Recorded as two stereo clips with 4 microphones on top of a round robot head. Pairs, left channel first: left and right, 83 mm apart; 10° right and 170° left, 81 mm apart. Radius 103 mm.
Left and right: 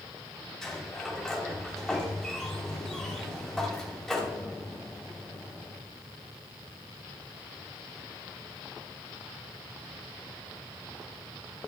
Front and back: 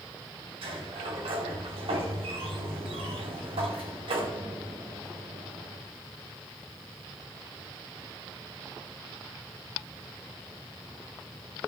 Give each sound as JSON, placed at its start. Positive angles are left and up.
{"t": 0.6, "sound": "a sliding door", "azimuth_deg": 180, "distance_m": 3.0}